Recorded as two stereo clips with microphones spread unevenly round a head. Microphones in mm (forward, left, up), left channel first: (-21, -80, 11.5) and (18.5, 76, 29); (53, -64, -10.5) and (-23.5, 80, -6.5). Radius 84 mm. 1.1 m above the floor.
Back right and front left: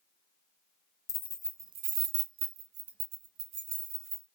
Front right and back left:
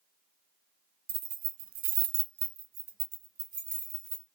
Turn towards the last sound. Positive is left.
turn(degrees=65)